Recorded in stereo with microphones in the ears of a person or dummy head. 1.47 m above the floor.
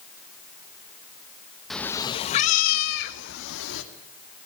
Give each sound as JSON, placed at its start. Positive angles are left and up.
{"t": 1.7, "sound": "a cat meowing", "side_deg": 0, "distance_m": 0.9}